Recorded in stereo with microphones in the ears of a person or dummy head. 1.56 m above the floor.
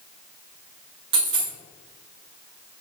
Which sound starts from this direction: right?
A dropped coin, at 1.1 s.